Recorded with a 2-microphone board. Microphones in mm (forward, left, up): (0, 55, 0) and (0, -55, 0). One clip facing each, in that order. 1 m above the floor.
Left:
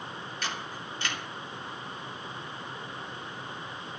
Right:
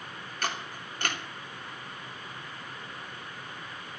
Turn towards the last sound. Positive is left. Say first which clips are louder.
# right 4 dB
turn(degrees=-55)  # may be behind; listen again after turning